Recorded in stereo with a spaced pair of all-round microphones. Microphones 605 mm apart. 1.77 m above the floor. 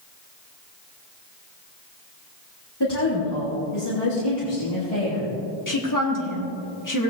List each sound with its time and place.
2.8 s a woman speaking: 40° left (ahead or behind), 2.5 m; by 5.3 s 70° left (ahead or behind), 3 m
5.7 s a woman speaking: 30° left (ahead or behind), 1.6 m